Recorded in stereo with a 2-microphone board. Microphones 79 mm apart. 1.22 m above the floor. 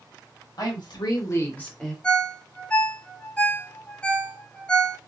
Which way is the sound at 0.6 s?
60° left (ahead or behind).